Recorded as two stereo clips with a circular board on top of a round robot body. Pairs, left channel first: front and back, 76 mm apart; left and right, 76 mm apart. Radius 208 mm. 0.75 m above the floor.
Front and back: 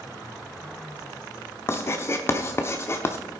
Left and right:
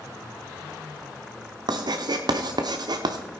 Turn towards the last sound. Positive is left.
turn(degrees=-60)